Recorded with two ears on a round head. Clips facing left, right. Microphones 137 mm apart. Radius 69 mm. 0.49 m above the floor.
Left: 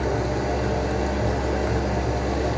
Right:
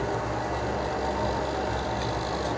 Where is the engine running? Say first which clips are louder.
Left 5 dB; 75° left (ahead or behind), 6 m.